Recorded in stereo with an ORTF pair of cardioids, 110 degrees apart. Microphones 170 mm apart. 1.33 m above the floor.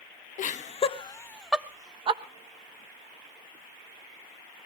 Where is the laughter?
50° left, 1.7 m; by 2.2 s 40° right, 1.5 m.